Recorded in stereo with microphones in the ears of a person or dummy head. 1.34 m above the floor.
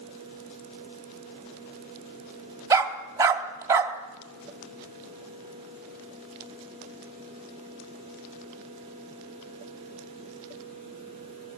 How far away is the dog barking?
About 2.5 m.